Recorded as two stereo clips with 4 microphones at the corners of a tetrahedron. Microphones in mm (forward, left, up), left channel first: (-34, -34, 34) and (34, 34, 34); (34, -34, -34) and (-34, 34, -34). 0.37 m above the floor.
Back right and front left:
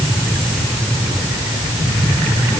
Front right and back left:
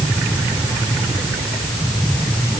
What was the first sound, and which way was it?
Only background noise.